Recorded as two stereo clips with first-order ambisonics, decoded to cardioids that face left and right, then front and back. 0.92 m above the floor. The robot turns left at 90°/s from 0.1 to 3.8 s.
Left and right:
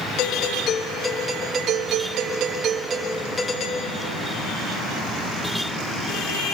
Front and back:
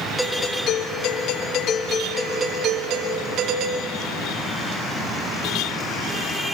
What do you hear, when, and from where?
0.2 s a doorbell: 90° left, 1.9 m; by 4.0 s 125° left, 1.9 m